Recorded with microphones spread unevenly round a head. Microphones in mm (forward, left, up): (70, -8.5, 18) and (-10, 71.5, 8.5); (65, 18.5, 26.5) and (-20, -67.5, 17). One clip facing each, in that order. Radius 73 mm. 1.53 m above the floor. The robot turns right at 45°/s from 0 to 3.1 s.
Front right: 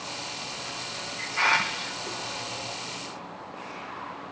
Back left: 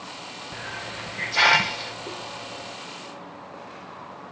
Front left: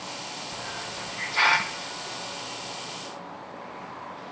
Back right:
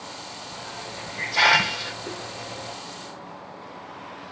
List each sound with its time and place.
0.5 s a hiss: 140° left; by 2.8 s 120° right